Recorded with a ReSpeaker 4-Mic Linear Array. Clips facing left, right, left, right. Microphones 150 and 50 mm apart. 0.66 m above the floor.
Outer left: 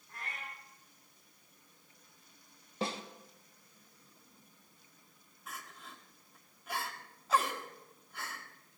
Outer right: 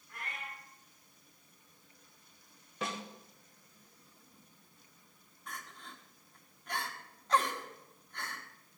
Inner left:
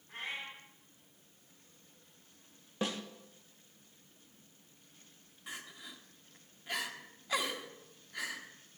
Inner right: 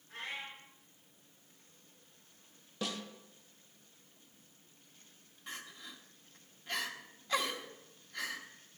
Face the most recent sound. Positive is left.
turn(degrees=5)  # may be behind; listen again after turning